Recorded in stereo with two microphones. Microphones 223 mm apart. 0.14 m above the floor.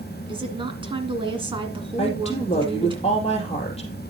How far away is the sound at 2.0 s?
About 4 m.